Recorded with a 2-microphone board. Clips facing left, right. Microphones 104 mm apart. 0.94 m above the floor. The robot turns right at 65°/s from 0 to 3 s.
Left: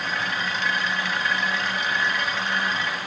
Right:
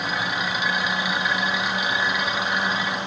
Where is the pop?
I don't hear a pop.